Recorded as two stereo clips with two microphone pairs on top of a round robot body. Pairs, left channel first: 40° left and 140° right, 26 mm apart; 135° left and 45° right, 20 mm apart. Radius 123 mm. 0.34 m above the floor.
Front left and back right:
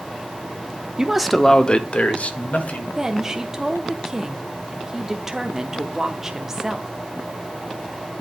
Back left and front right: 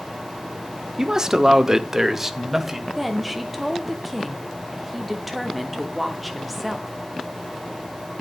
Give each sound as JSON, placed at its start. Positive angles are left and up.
{"t": 1.0, "sound": "a man speaking", "azimuth_deg": -105, "distance_m": 0.9}
{"t": 3.0, "sound": "a woman speaking", "azimuth_deg": -155, "distance_m": 1.0}